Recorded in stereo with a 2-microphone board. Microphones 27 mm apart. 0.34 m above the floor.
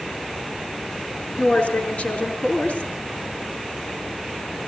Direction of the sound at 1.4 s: 75° left (ahead or behind).